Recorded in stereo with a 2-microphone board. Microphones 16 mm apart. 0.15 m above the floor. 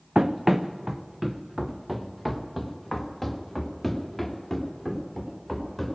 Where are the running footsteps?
50° right (ahead or behind), 0.7 m; by 6.0 s centre (ahead or behind), 3.5 m.